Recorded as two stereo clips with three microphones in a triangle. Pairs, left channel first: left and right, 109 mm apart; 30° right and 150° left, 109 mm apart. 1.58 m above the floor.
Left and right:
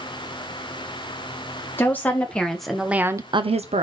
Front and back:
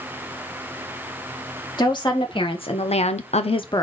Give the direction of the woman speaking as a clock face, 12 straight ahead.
11 o'clock.